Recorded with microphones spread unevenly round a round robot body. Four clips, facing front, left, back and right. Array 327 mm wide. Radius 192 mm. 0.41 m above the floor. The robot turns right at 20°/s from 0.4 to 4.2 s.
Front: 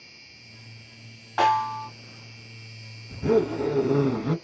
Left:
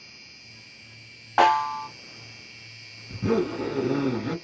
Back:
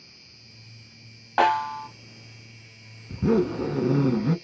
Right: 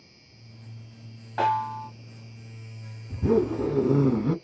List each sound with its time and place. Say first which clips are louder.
0.0 s an insect: left 2 dB, front 2 dB; 35° left, 1.3 m; by 4.5 s 110° left, 1.3 m
1.4 s a snare drum: left 5 dB, even; 110° left, 1.2 m; by 1.9 s 120° left, 1.2 m
3.1 s a zipper: right 2 dB, even; 155° right, 0.6 m; by 4.3 s 130° right, 0.6 m